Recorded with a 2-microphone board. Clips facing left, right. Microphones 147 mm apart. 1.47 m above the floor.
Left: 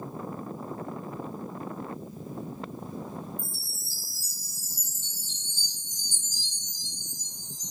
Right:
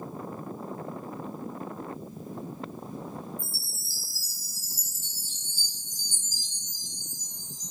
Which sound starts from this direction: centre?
A chime, at 3.4 s.